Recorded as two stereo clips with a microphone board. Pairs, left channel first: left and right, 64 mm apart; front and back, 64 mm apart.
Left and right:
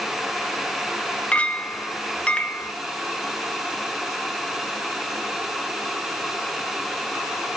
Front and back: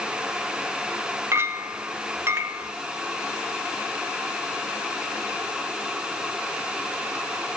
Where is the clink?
155° left, 0.9 m.